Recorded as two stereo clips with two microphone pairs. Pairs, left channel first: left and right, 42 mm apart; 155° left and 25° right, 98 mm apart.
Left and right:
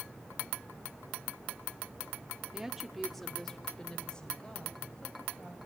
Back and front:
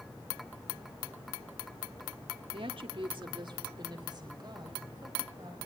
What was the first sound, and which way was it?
A woman speaking, 20° right.